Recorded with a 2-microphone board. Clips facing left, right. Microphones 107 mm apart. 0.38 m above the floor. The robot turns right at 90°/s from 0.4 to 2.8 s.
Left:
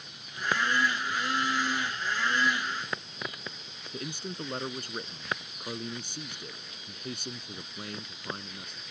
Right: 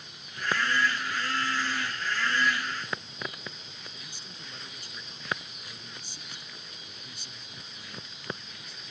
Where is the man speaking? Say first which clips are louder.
Left 11 dB; 60° left (ahead or behind).